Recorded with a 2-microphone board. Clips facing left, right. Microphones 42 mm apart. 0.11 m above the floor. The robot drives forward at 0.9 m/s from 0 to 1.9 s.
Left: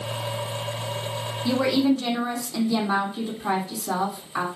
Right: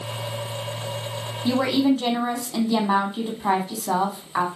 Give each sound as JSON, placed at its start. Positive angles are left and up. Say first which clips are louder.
{"t": 1.4, "sound": "a woman speaking", "louder": "right 1 dB", "side_deg": -45, "distance_m": 3.5}